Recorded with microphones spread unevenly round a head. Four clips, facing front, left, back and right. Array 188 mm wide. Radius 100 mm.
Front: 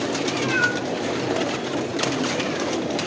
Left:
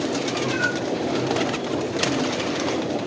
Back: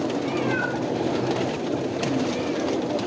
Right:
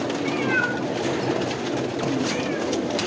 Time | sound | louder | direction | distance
0.2 | a cat meowing | right 1 dB, front 2 dB | 65° right | 7 m